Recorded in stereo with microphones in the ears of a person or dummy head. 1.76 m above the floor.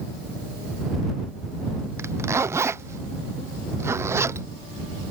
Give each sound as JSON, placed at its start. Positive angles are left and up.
{"t": 2.0, "sound": "a zipper", "side_deg": -20}